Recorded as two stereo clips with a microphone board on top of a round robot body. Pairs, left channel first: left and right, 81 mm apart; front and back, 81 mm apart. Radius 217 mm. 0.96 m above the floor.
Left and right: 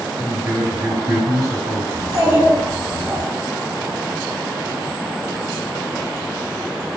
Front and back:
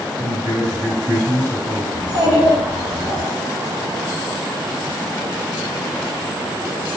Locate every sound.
0.2 s a man speaking: 145° right, 1.4 m
1.9 s a child speaking: 160° right, 1.6 m